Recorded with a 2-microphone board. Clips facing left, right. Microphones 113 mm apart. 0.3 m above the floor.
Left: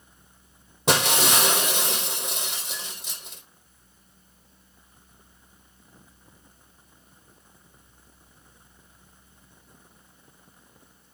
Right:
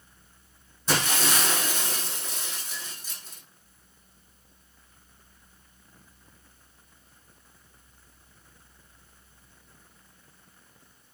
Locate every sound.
0.9 s breaking glass: 80° left, 3 m